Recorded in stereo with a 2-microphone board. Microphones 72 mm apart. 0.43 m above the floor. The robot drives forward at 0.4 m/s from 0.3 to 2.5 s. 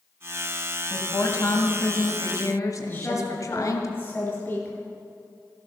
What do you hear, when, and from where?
0.9 s a woman speaking: 40° left (ahead or behind), 2.5 m; by 3.9 s 50° left (ahead or behind), 2.0 m
2.9 s a woman speaking: 30° left (ahead or behind), 7 m